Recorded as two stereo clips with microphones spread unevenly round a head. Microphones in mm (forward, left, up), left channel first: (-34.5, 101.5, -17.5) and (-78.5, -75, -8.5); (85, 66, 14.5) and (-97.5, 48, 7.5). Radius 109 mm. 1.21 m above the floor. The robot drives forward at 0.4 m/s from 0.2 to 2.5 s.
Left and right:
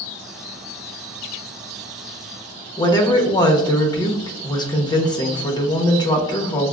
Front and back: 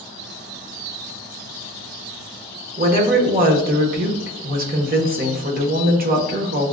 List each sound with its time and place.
2.8 s a woman speaking: 145° left, 0.9 m